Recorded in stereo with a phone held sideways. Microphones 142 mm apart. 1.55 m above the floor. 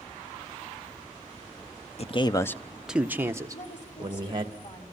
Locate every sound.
2.0 s a man speaking: 50° left (ahead or behind), 0.9 m; by 4.5 s 35° right (ahead or behind), 2.5 m
3.5 s a woman speaking: 55° left (ahead or behind), 5 m